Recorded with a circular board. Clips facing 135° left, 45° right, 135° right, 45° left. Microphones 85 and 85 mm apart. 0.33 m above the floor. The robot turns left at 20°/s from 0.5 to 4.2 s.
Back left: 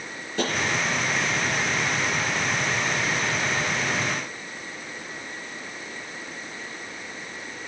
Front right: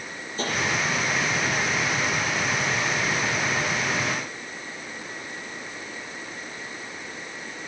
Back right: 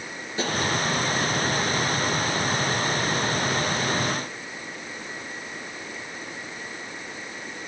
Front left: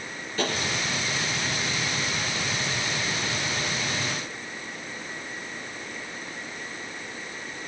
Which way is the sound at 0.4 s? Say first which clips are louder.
Back left 3 dB, even; 155° left.